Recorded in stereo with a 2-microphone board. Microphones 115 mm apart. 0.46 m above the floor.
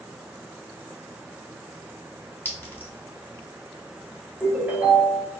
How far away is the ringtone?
About 1.6 m.